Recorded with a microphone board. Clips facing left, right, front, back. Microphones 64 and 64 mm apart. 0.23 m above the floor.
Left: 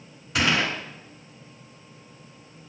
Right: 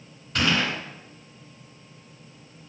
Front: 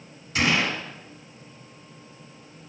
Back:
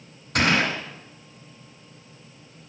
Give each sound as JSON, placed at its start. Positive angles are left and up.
{"t": 0.3, "sound": "a gunshot", "azimuth_deg": 170, "distance_m": 2.0}